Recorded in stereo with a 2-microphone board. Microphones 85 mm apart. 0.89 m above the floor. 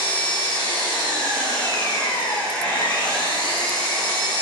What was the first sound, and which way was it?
An engine running, 85° left.